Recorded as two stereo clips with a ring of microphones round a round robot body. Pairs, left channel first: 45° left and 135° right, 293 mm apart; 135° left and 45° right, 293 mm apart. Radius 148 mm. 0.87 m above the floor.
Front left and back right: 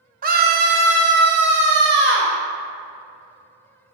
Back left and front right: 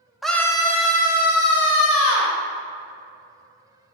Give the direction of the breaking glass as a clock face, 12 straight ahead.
I don't hear breaking glass.